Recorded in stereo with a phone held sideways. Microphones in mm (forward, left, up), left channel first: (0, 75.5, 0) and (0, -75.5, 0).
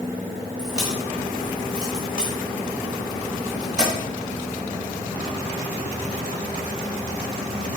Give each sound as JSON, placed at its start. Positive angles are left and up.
{"t": 0.6, "sound": "a crack", "side_deg": -5, "distance_m": 4.0}